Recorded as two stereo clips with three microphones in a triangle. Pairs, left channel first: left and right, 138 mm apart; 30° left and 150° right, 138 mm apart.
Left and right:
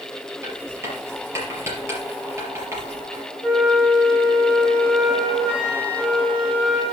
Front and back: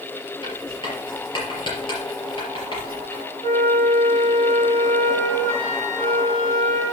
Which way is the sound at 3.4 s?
35° right.